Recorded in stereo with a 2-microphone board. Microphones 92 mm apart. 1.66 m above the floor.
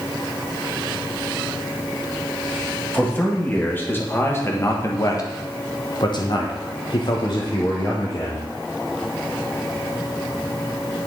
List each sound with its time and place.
2.9 s a man speaking: 15° left (ahead or behind), 2.0 m; by 8.5 s 40° left (ahead or behind), 1.5 m